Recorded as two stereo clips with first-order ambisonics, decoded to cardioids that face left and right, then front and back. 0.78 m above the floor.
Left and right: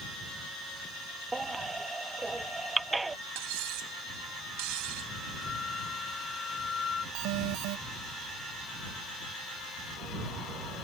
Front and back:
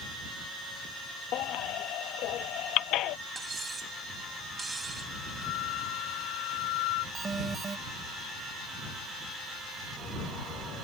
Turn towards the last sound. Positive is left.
turn(degrees=-105)